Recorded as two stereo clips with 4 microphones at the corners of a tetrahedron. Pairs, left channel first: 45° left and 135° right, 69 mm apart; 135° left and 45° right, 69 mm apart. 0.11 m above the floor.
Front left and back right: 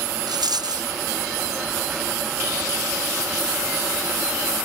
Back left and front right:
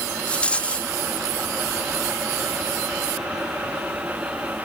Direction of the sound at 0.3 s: 150° right.